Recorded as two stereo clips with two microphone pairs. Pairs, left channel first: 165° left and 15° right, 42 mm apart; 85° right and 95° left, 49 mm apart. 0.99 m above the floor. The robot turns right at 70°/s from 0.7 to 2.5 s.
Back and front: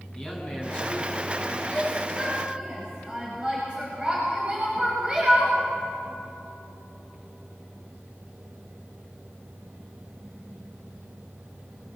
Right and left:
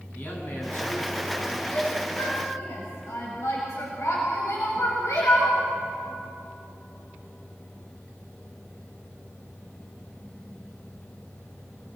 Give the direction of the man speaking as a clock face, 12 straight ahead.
5 o'clock.